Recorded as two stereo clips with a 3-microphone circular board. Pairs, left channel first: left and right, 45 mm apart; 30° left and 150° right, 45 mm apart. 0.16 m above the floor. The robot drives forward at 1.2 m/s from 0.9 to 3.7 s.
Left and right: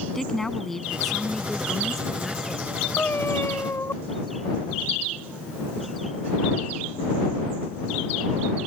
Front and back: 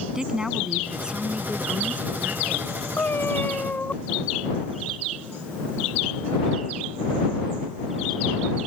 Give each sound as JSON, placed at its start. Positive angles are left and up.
{"t": 0.1, "sound": "a woman speaking", "azimuth_deg": 160}
{"t": 3.0, "sound": "a cat meowing", "azimuth_deg": 55}